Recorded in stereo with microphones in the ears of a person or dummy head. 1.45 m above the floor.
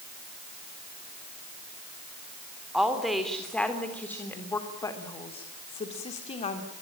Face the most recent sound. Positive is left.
turn(degrees=40)  # may be behind; listen again after turning